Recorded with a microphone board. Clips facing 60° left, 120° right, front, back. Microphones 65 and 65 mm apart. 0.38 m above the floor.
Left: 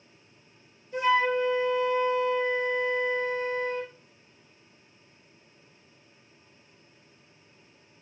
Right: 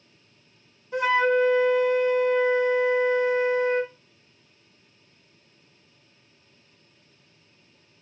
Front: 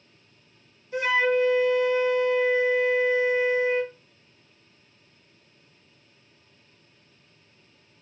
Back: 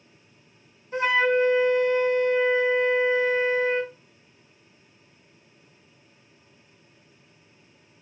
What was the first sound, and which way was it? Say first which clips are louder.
A flute: right 3 dB, back 1 dB; 130° right.